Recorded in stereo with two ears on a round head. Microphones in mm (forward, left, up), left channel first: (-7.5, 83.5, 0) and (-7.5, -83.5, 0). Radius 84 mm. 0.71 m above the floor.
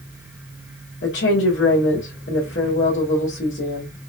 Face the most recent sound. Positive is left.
turn(degrees=60)  # may be behind; listen again after turning